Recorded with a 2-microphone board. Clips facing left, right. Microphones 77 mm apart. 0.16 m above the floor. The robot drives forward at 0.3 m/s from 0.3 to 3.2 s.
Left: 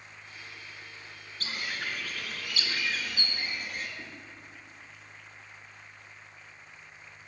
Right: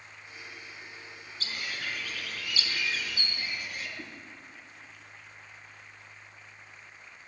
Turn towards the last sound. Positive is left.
turn(degrees=-10)  # may be behind; listen again after turning